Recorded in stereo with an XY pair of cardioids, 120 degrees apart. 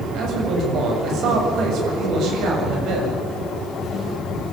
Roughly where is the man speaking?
Ahead right.